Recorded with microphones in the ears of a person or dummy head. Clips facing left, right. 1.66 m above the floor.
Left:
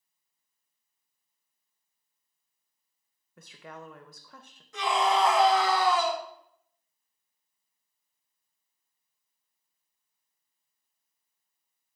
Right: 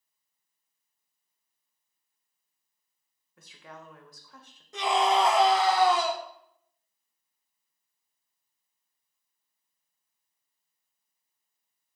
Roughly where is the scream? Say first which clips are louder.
Right 2 dB; centre.